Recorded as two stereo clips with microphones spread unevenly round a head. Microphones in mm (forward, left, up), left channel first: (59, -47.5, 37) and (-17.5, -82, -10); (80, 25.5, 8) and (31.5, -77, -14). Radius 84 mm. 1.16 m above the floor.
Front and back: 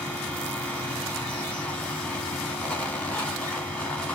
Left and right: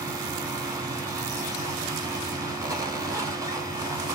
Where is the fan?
65° right, 1.9 m.